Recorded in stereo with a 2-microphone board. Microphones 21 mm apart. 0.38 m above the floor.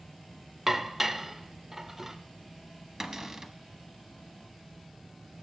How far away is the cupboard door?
About 0.8 m.